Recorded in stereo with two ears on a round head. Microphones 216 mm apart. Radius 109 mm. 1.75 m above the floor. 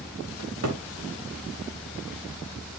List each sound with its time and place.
0.4 s a cupboard door: 70° right (ahead or behind), 2.5 m